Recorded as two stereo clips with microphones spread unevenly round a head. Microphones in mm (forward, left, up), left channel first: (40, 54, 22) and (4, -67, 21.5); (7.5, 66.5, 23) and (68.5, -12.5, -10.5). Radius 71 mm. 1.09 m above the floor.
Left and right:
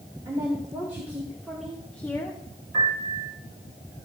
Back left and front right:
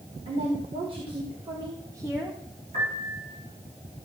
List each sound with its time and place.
0.2 s a woman speaking: 45° right, 2.5 m; by 2.4 s 15° left, 1.2 m
2.7 s a piano: 80° right, 6 m